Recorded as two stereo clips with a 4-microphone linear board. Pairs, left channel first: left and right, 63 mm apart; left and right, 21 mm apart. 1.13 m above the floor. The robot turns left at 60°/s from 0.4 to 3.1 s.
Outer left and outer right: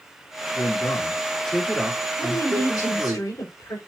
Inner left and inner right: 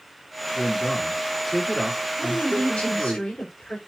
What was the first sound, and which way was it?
A man speaking, 65° left.